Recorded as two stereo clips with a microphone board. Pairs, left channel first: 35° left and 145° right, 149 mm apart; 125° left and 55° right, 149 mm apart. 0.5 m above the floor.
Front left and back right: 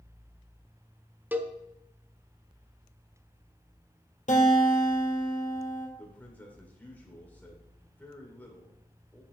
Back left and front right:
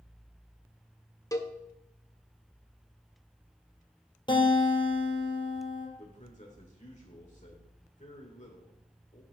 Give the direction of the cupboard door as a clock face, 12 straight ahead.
No cupboard door in this recording.